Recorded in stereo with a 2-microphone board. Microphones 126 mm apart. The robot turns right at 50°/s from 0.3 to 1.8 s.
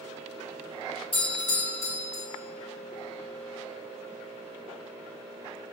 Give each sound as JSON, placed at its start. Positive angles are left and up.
{"t": 1.1, "sound": "a doorbell", "azimuth_deg": 115, "distance_m": 3.0}